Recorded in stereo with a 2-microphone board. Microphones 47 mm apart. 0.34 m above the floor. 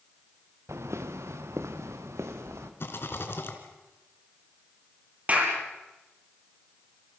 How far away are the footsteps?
About 1.6 m.